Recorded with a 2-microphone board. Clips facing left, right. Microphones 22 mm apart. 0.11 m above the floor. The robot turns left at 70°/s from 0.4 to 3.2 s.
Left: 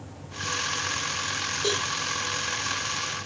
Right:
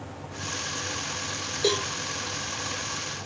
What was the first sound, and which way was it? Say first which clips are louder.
A cowbell: right 3 dB; 60° right (ahead or behind).